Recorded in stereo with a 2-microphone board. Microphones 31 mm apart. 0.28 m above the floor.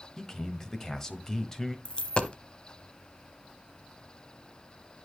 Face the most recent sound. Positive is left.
turn(degrees=35)  # may be behind; listen again after turning